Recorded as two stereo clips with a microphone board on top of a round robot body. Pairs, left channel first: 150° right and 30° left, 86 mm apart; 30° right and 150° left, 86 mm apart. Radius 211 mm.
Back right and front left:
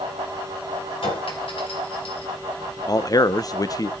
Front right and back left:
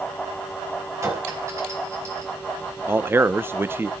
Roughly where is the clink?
Behind right.